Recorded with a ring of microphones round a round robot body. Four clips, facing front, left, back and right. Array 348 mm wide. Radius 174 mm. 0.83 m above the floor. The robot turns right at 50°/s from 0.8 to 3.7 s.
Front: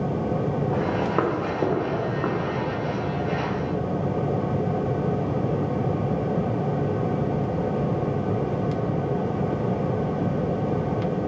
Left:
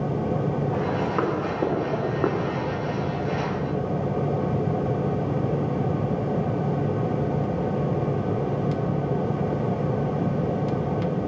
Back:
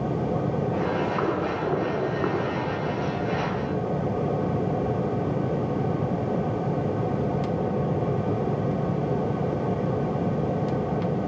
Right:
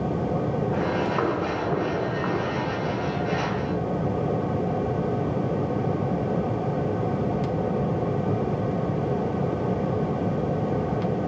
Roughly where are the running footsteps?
Ahead.